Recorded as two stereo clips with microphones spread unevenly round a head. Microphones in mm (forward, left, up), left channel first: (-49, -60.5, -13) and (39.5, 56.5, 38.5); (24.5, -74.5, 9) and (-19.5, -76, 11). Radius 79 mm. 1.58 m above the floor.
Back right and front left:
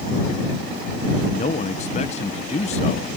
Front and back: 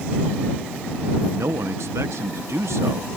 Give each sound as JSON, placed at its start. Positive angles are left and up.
{"t": 1.3, "sound": "a man speaking", "azimuth_deg": 180}